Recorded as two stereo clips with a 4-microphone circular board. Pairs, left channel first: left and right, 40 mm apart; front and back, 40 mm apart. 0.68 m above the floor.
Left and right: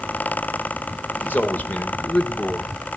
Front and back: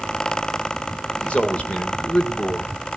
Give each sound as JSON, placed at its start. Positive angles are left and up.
{"t": 1.2, "sound": "a man speaking", "azimuth_deg": 60, "distance_m": 3.5}